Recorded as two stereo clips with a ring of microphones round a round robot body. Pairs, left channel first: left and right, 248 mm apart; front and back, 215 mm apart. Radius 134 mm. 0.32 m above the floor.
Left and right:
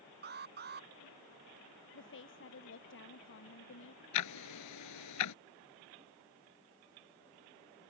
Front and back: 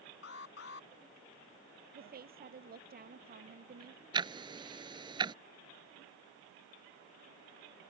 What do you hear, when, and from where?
0.2 s an alarm: 40° right
1.9 s a woman speaking: 135° left
4.1 s ticking: 110° left